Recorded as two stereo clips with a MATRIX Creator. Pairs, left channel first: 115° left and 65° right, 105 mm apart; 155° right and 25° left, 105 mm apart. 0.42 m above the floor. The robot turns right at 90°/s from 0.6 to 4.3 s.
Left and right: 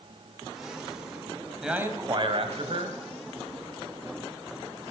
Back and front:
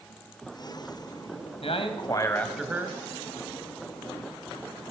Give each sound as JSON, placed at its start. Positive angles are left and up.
{"t": 1.6, "sound": "a man speaking", "azimuth_deg": -155, "distance_m": 2.5}